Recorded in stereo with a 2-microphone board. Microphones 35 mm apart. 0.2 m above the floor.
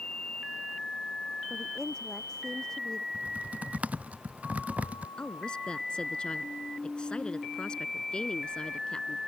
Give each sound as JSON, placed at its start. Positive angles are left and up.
{"t": 1.5, "sound": "a woman speaking", "side_deg": 15}
{"t": 3.1, "sound": "typing on a keyboard", "side_deg": -45}
{"t": 5.2, "sound": "a woman speaking", "side_deg": 25}